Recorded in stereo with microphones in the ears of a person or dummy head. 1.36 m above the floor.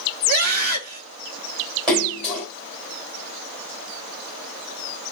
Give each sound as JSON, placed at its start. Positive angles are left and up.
{"t": 0.3, "sound": "a scream", "side_deg": -40, "distance_m": 2.0}
{"t": 1.9, "sound": "a splash", "side_deg": -20, "distance_m": 4.0}